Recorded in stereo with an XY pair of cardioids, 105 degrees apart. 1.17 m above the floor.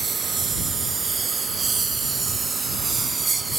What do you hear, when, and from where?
0.0 s a lawn mower: 40° right; by 3.6 s 30° right